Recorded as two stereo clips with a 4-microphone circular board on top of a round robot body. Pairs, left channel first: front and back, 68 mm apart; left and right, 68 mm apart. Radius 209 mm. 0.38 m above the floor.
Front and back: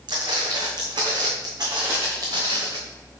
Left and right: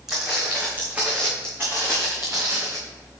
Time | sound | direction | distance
0.1 | footsteps | 175° right | 1.5 m